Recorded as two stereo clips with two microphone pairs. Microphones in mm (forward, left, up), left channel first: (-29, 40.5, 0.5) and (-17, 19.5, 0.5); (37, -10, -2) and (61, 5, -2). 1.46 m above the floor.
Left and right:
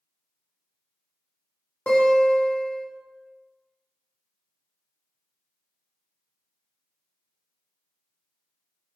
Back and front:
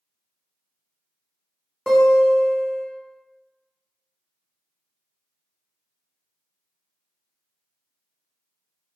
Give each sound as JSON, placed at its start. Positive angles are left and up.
{"t": 1.9, "sound": "a guitar", "azimuth_deg": 115, "distance_m": 1.2}